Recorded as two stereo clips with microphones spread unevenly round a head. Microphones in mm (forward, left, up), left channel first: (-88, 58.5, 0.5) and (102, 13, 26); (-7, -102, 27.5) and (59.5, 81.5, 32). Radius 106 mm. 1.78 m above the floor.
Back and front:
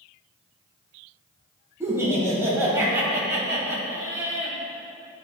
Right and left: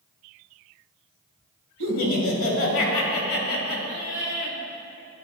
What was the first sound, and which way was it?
Laughter, 95° right.